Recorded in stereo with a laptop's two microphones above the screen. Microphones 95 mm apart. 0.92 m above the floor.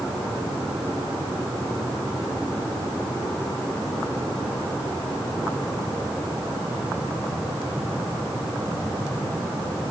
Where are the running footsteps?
I don't hear running footsteps.